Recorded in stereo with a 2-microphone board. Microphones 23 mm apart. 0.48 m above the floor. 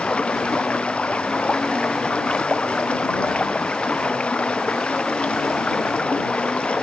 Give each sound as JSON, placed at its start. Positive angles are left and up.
{"t": 0.0, "sound": "running water", "side_deg": 60}